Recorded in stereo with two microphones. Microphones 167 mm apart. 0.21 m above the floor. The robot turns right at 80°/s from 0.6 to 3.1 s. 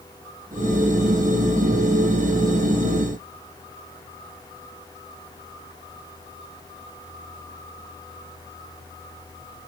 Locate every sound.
Only background noise.